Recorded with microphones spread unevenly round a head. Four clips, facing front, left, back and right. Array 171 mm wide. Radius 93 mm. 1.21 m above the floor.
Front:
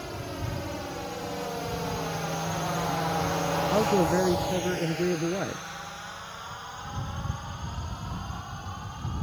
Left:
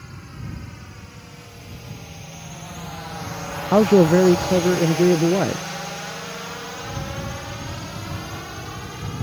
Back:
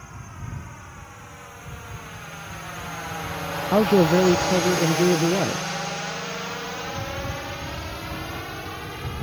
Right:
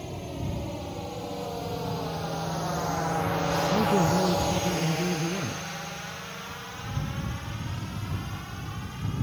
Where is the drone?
40° right; by 9.2 s 150° left.